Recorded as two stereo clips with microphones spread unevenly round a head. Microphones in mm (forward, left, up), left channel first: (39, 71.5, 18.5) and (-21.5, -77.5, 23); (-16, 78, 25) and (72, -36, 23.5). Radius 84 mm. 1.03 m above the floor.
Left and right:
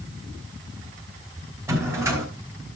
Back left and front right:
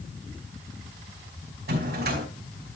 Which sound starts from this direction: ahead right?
A drawer, at 1.7 s.